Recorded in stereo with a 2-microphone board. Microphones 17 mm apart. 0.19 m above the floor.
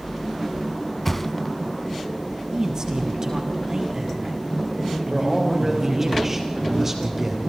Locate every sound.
1.1 s a thud: 5° left (ahead or behind), 0.6 m
2.5 s a man speaking: 45° right (ahead or behind), 4.5 m
5.1 s a man speaking: 25° right (ahead or behind), 5.5 m